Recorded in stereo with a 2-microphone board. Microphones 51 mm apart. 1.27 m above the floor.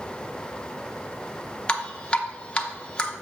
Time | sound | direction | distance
1.7 | dripping | 20° left (ahead or behind) | 0.8 m